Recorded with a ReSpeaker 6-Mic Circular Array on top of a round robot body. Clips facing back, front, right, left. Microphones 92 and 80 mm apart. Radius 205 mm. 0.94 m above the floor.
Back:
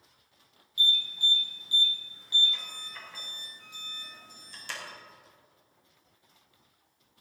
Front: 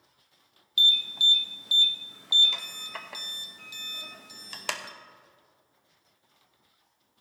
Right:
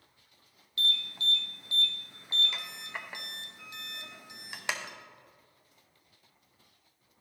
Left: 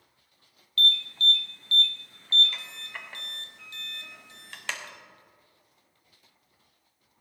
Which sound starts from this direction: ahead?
An alarm, at 0.8 s.